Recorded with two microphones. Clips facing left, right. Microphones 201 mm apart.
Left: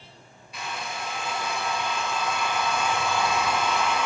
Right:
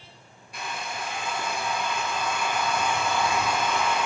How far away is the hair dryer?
About 1.0 m.